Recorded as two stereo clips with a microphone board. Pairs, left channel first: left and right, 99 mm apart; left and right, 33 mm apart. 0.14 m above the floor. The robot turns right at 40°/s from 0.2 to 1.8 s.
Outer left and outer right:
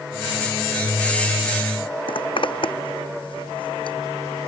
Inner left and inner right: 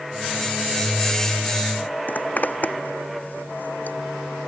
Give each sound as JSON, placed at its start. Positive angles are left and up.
{"t": 2.1, "sound": "a zipper", "side_deg": 60}